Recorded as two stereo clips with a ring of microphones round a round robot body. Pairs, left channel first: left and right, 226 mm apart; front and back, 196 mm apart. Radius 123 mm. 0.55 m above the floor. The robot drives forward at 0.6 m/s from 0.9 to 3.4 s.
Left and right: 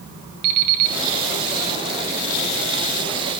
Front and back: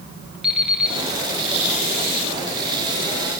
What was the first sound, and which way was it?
An alarm clock, 90° right.